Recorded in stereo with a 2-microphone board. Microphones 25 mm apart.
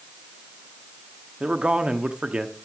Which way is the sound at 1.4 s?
45° right (ahead or behind).